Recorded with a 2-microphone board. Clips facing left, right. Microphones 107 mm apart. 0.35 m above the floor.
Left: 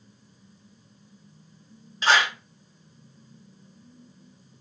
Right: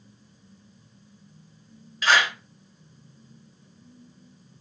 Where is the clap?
30° left (ahead or behind), 1.4 m.